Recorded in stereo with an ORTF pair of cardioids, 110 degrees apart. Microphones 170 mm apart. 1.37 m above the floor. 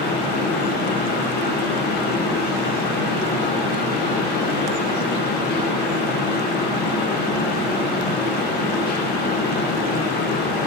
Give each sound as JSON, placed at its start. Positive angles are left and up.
{"t": 0.0, "sound": "a fan", "azimuth_deg": 65, "distance_m": 0.8}